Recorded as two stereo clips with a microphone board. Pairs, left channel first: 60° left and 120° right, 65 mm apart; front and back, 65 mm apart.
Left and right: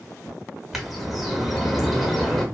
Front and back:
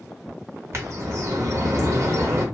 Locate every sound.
0.7 s a bird: 155° left, 0.9 m